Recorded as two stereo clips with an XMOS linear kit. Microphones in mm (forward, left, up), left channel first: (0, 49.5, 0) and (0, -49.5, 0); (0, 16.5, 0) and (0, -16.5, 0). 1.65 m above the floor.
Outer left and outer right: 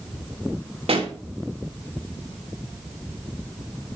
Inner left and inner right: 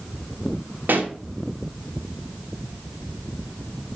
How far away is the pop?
About 2.5 m.